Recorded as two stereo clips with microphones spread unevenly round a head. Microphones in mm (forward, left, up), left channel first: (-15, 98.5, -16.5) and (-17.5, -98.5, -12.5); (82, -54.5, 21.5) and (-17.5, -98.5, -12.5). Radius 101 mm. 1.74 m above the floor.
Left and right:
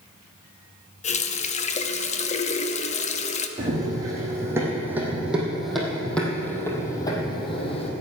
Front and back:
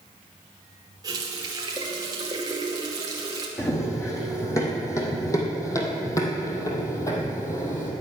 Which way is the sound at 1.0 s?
130° left.